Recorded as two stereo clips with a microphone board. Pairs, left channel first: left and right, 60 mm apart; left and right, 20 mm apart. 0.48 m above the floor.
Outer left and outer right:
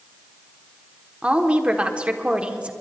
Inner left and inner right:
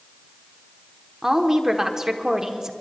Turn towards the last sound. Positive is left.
turn(degrees=-20)  # may be behind; listen again after turning